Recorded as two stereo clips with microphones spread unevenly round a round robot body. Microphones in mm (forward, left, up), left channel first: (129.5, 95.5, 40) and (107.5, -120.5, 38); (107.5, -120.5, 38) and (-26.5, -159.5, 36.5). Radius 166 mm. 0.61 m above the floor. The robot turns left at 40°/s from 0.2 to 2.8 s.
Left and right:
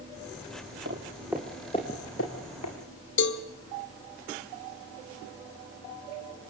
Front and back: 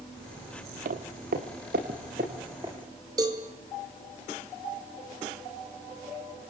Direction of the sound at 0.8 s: 155° right.